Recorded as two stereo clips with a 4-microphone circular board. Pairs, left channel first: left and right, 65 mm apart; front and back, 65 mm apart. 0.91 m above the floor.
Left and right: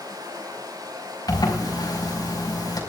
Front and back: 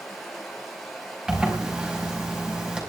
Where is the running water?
85° right, 6 m.